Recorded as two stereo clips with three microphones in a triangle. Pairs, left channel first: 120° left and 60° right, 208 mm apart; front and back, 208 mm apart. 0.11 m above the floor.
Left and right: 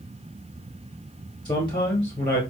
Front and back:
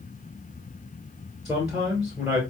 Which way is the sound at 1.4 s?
95° left.